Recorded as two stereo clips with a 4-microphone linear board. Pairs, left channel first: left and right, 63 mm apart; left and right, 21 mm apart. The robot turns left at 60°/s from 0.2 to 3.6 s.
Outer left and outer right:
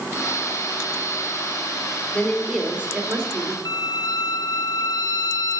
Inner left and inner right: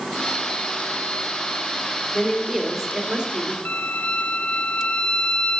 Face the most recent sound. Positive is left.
turn(degrees=85)